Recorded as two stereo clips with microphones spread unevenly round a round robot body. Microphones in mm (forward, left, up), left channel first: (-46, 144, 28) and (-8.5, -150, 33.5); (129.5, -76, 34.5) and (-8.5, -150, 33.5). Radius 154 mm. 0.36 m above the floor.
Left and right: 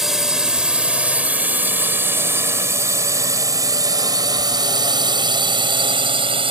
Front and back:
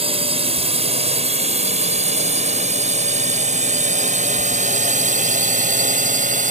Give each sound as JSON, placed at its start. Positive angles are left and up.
{"t": 0.0, "sound": "a drone", "azimuth_deg": -170}